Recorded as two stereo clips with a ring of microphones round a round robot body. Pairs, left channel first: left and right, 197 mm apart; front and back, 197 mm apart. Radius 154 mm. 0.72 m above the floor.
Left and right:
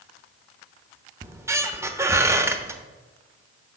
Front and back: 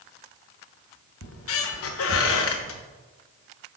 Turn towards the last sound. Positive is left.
turn(degrees=-15)